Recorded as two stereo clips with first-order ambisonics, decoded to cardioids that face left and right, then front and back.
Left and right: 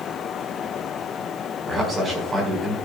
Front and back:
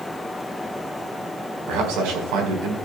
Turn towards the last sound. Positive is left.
turn(degrees=-160)